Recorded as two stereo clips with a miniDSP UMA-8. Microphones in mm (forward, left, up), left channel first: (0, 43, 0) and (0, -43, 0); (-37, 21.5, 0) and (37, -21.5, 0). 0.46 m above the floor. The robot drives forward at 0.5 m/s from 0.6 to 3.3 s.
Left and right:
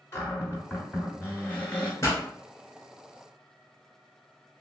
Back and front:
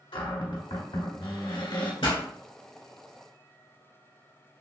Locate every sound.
0.1 s a cupboard door: 150° left, 1.6 m; by 1.9 s 160° left, 2 m
2.0 s a pop: 145° left, 1.5 m